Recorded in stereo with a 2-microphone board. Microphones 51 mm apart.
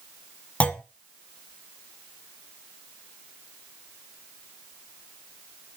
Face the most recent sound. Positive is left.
turn(degrees=20)  # may be behind; listen again after turning